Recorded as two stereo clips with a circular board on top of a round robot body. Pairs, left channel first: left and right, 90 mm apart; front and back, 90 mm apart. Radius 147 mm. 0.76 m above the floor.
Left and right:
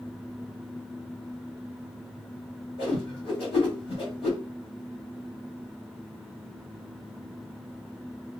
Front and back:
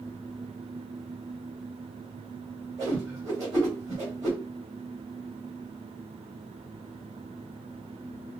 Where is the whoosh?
120° left, 2.0 m.